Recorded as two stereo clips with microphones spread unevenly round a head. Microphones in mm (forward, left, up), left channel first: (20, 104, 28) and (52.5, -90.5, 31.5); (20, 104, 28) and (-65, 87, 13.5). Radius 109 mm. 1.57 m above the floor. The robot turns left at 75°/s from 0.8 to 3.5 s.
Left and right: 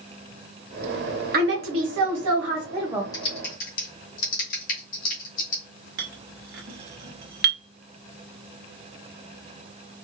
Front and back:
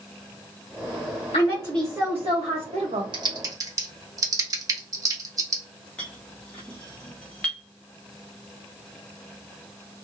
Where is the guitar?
I don't hear a guitar.